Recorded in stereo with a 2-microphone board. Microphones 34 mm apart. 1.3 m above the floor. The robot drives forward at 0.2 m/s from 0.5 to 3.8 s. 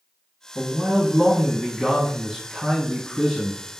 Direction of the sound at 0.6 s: 5° left (ahead or behind).